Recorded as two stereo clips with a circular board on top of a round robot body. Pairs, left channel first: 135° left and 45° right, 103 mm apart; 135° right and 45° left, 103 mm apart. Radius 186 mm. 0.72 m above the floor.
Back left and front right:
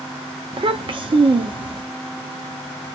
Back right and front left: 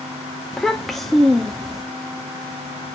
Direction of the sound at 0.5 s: 50° right.